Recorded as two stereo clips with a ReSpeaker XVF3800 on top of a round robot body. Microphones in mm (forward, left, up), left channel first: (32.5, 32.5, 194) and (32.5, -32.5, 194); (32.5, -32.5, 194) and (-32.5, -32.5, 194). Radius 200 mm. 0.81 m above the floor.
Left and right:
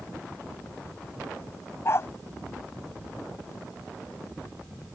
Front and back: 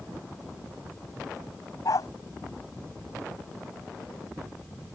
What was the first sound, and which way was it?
A dog barking, 40° left.